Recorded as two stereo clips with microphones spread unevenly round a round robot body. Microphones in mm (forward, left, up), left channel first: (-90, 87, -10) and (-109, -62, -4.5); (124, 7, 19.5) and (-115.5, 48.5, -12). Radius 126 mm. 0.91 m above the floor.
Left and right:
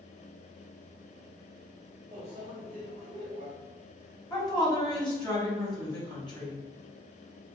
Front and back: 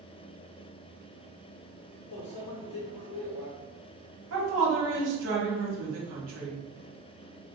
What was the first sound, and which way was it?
A microwave, 25° right.